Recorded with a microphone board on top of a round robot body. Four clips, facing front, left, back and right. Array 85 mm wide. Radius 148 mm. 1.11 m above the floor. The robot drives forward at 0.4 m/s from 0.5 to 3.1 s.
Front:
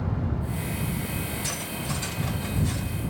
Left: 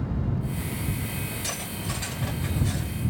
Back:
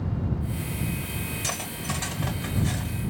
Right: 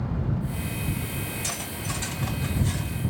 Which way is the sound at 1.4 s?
170° left.